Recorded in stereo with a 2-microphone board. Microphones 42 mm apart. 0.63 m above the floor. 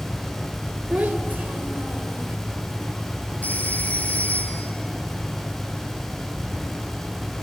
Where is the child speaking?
45° right (ahead or behind), 1.5 m.